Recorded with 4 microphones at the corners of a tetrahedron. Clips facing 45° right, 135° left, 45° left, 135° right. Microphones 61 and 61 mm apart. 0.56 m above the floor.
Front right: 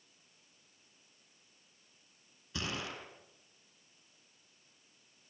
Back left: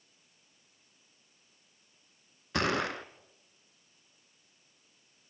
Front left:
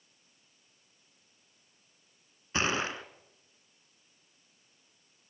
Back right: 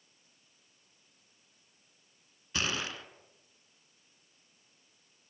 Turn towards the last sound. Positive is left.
turn(degrees=105)